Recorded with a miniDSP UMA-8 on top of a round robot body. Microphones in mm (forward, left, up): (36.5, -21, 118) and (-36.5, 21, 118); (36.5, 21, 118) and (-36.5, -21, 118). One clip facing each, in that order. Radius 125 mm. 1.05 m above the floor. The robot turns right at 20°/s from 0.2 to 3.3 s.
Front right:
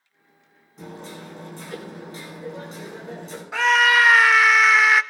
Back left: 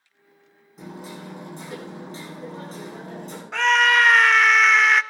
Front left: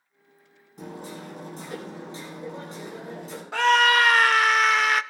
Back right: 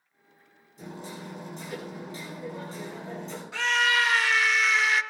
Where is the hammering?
60° left, 9.5 m; by 3.4 s 115° left, 9.5 m.